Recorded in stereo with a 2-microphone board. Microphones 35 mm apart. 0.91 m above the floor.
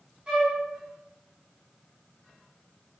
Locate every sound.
0.3 s a flute: 15° right (ahead or behind), 0.9 m